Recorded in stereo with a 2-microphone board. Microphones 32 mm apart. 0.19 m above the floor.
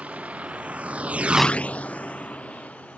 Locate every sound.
0.0 s a vehicle: 50° right (ahead or behind); by 3.0 s 50° left (ahead or behind)